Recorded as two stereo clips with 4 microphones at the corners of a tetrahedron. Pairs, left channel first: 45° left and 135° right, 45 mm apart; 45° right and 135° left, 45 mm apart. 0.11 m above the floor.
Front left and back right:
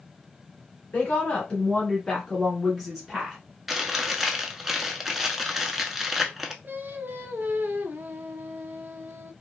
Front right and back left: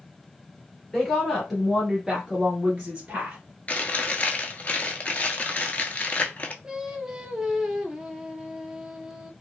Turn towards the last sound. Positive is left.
turn(degrees=-155)